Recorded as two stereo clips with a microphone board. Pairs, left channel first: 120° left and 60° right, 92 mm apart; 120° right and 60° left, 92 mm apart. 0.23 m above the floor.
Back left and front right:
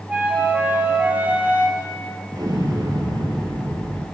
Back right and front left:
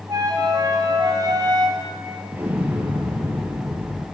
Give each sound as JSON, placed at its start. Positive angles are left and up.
{"t": 0.1, "sound": "a flute", "azimuth_deg": 15, "distance_m": 3.5}
{"t": 2.3, "sound": "an explosion", "azimuth_deg": -10, "distance_m": 4.0}